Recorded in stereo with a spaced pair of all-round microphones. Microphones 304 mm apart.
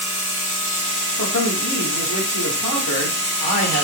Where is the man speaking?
85° left, 1.8 m.